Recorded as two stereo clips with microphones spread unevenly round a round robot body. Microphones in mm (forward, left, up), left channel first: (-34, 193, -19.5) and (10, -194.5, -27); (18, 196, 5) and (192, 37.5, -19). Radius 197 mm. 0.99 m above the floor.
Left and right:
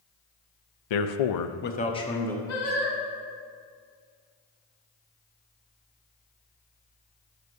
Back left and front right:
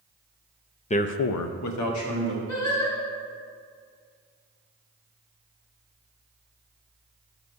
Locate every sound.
0.9 s a man speaking: 70° left, 0.7 m; by 2.4 s 175° right, 1.9 m
2.5 s singing: 145° left, 3.5 m